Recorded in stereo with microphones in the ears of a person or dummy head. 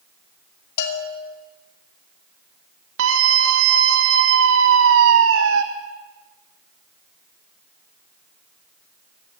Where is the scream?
75° right (ahead or behind), 1.1 m.